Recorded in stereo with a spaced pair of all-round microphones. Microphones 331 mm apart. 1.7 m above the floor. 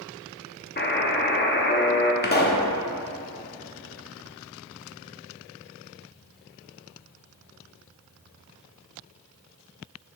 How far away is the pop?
About 0.7 m.